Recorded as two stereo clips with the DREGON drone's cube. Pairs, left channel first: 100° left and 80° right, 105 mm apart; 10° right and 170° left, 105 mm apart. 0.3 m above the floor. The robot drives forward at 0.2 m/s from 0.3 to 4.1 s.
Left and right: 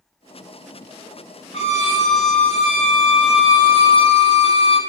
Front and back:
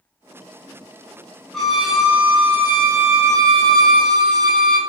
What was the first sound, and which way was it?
A violin, 75° left.